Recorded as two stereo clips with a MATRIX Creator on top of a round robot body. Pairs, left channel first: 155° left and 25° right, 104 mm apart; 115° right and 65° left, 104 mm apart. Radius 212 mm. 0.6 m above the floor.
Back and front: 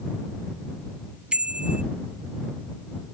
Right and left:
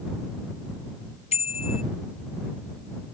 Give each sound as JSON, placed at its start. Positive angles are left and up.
{"t": 1.3, "sound": "a bicycle bell", "azimuth_deg": -105}